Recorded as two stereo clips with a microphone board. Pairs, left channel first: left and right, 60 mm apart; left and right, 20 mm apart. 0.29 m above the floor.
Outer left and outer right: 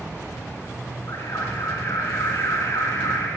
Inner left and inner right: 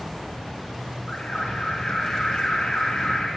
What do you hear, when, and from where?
1.1 s an alarm: 55° left (ahead or behind), 4 m